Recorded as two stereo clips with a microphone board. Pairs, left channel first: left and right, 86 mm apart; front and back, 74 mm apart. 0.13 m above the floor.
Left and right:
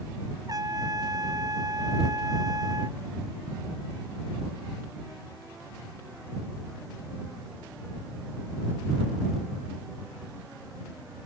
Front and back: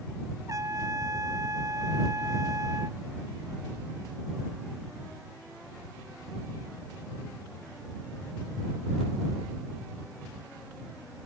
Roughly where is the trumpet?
Behind right.